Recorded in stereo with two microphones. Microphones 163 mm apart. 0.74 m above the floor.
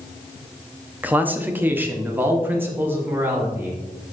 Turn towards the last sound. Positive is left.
turn(degrees=-15)  # may be behind; listen again after turning